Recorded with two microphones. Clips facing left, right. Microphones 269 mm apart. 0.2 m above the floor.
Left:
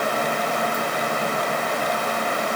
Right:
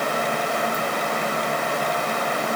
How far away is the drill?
No drill in this recording.